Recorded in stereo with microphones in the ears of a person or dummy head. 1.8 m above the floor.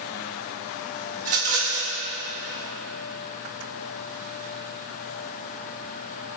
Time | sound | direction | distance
1.2 | a rattle | 45° right (ahead or behind) | 1.0 m